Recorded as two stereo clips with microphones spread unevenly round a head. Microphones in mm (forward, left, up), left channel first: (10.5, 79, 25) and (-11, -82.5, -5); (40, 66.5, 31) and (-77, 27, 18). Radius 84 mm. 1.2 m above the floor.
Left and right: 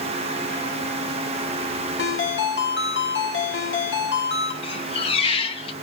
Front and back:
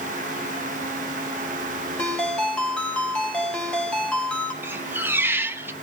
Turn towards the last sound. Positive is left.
turn(degrees=125)